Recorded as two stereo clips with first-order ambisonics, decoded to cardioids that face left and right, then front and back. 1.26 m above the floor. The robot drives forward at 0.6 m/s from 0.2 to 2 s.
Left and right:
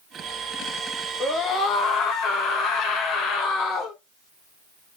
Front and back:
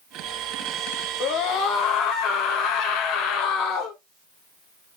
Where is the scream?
25° left, 1.4 m; by 4.0 s 40° left, 1.0 m.